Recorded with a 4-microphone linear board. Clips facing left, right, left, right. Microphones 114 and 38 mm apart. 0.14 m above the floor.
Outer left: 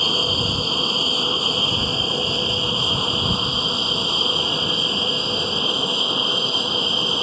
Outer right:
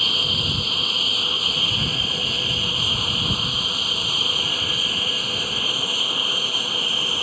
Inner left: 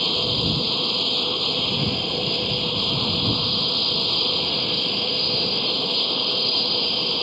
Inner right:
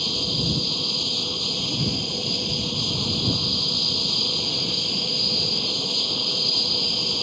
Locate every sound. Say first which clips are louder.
0.0 s an aircraft: outer left 5 dB, inner left 4 dB; 25° left (ahead or behind); by 7.2 s 20° left (ahead or behind)